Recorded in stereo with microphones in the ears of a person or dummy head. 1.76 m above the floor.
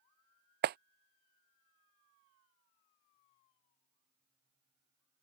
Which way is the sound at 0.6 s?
45° right (ahead or behind).